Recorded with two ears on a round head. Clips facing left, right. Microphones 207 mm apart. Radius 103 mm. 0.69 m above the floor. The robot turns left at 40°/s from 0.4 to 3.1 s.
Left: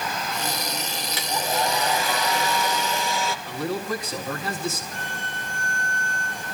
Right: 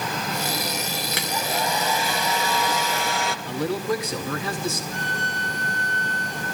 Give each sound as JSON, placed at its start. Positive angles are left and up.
{"t": 1.1, "sound": "a hair dryer", "azimuth_deg": -50, "distance_m": 3.0}
{"t": 3.5, "sound": "a man speaking", "side_deg": -65, "distance_m": 6.0}
{"t": 4.9, "sound": "a violin", "side_deg": -60, "distance_m": 4.5}